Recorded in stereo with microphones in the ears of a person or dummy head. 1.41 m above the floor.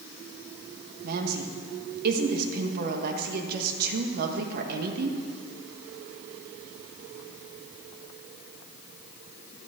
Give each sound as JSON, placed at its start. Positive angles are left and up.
{"t": 1.0, "sound": "a woman speaking", "side_deg": -55, "distance_m": 1.3}